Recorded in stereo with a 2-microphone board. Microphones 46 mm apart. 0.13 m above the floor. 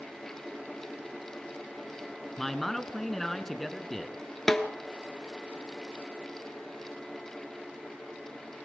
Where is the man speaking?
5° left (ahead or behind), 1.2 m.